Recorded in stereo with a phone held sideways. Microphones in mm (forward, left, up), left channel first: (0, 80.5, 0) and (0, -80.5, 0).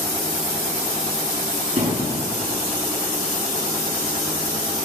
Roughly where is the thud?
Right.